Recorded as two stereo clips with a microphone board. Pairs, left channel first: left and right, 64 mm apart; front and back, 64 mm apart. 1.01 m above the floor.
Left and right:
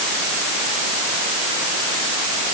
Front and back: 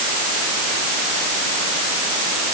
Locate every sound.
Only background noise.